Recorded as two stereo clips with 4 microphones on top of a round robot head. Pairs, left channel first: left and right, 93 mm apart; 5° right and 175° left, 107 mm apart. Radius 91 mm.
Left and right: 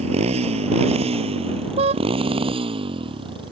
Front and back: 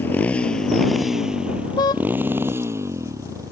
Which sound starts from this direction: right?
A motorcycle, at 0.0 s.